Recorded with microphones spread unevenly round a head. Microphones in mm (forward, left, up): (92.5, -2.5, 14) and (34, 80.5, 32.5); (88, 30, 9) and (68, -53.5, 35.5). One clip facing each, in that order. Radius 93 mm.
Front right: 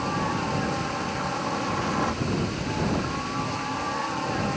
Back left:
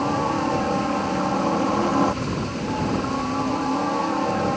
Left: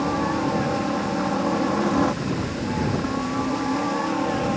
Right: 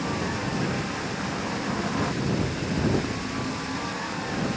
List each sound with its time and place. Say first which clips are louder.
0.0 s a helicopter: back left 5 dB, left 6 dB; 90° left